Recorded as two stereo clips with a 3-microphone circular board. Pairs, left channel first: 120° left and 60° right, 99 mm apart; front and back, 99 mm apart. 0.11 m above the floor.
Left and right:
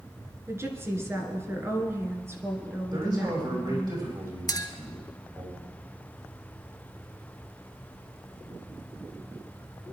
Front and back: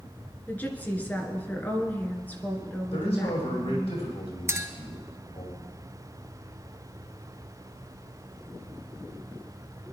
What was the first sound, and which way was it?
A woman speaking, 50° right.